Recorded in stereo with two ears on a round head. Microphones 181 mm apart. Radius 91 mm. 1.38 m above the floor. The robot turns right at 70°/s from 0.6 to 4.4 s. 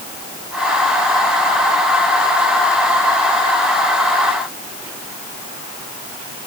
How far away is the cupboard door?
No cupboard door in this recording.